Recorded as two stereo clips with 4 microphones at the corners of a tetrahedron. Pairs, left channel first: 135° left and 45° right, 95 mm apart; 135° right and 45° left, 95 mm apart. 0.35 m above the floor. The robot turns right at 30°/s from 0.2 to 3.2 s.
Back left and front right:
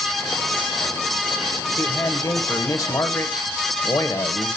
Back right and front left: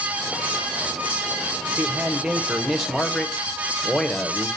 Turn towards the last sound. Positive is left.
turn(degrees=145)